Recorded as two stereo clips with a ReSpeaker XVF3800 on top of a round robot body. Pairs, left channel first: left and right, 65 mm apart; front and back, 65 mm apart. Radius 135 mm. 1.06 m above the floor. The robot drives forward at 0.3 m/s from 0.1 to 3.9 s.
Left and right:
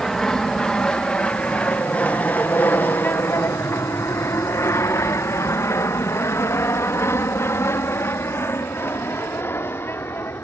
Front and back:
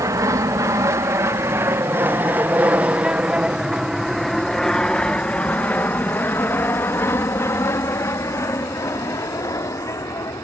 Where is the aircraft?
170° left; by 10.4 s 35° left.